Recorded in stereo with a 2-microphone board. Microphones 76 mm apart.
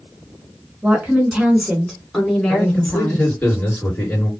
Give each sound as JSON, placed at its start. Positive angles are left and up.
{"t": 0.8, "sound": "a woman speaking", "side_deg": -20, "distance_m": 1.5}
{"t": 2.5, "sound": "a man speaking", "side_deg": 25, "distance_m": 2.0}